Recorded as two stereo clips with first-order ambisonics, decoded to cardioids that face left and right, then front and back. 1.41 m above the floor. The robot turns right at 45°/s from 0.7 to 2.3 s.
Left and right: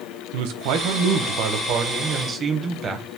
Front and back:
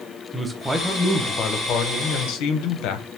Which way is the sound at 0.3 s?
95° right.